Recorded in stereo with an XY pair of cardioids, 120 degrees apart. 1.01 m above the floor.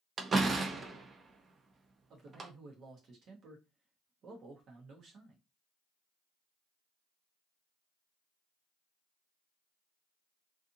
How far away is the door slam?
About 0.6 m.